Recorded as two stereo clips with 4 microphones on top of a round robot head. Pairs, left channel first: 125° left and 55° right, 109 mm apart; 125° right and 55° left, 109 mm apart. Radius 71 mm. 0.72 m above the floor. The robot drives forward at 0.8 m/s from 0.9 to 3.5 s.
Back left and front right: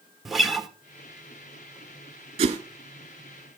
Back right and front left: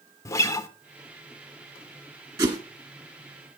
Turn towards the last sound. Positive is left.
turn(degrees=-15)